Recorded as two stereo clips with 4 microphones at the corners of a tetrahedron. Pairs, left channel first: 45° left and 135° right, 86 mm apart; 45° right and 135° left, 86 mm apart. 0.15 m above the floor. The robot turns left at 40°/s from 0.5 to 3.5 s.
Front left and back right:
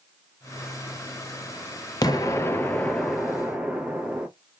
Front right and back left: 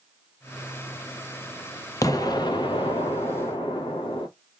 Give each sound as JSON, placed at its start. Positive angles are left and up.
{"t": 2.0, "sound": "an explosion", "azimuth_deg": 5, "distance_m": 0.5}